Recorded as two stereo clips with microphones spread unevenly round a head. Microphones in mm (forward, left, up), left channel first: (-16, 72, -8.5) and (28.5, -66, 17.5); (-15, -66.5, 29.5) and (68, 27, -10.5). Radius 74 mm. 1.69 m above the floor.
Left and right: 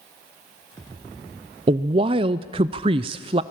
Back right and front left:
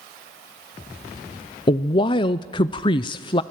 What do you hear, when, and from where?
1.7 s a woman speaking: 110° right, 0.6 m